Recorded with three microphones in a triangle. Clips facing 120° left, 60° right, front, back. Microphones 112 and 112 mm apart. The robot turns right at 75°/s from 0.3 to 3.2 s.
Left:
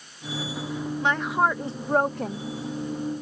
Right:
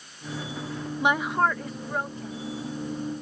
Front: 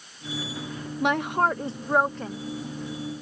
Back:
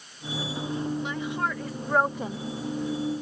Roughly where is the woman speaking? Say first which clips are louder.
Even, front 6 dB; ahead.